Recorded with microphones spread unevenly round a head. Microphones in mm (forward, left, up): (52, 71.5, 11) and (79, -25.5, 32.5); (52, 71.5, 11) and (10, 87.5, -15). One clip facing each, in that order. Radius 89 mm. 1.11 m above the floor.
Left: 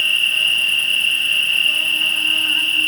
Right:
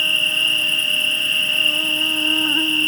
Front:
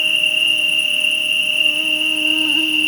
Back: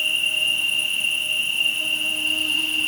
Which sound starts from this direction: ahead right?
An insect, at 0.0 s.